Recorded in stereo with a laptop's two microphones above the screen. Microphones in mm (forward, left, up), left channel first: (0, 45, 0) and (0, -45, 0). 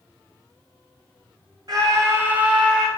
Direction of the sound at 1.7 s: 50° right (ahead or behind).